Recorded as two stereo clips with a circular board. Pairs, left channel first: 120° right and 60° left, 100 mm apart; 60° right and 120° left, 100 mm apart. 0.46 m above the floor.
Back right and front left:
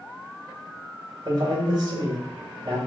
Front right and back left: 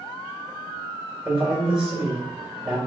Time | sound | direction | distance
1.2 | a man speaking | 40° left | 1.6 m